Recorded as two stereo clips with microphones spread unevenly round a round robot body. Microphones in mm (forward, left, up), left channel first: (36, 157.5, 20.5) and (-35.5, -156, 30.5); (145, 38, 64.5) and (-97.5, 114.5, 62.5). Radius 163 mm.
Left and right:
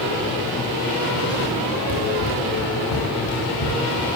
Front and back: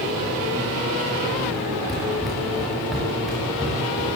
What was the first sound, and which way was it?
Running footsteps, 70° left.